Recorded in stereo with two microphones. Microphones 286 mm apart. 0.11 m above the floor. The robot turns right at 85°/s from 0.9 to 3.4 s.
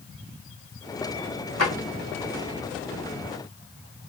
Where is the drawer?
60° left (ahead or behind), 1.8 m; by 1.7 s 50° left (ahead or behind), 1.8 m.